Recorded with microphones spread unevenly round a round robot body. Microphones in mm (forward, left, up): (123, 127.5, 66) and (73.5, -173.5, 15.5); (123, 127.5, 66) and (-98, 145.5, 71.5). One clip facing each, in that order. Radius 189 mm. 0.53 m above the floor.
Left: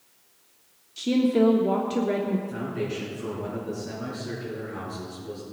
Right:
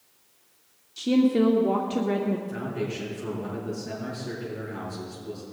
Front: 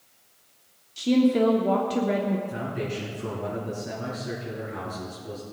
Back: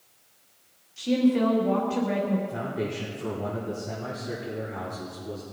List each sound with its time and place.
1.0 s a woman speaking: 20° right, 1.5 m
2.5 s a man speaking: straight ahead, 5.5 m